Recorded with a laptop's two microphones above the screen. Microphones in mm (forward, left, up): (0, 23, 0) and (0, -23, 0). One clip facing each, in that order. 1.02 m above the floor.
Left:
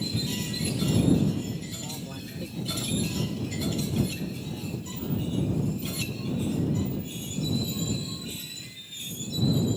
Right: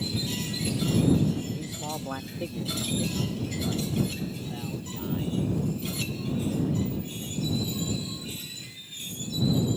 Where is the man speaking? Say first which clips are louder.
Right 3 dB; 65° right (ahead or behind); by 7.5 s 20° right (ahead or behind).